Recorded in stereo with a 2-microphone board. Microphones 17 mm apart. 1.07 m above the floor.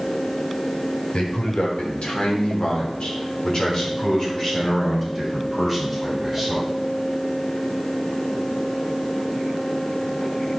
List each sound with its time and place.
1.1 s a man speaking: 80° left, 4 m; by 6.7 s centre (ahead or behind), 7 m